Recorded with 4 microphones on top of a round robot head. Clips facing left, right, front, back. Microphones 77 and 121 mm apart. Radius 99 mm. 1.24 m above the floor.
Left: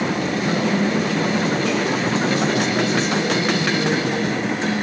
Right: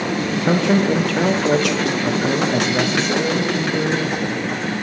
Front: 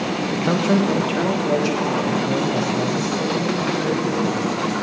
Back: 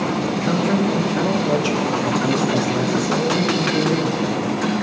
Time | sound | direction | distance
0.3 | a man speaking | 55° right | 1.4 m